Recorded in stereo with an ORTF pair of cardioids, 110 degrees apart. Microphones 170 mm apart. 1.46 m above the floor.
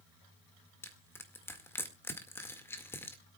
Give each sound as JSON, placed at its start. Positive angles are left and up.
{"t": 0.8, "sound": "crushing", "azimuth_deg": 15, "distance_m": 1.9}